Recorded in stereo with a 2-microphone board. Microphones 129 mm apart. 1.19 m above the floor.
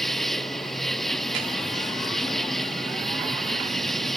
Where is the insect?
Centre (ahead or behind).